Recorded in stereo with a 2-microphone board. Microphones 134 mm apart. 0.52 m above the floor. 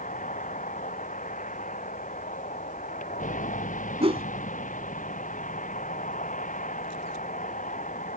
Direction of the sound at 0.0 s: 70° left (ahead or behind).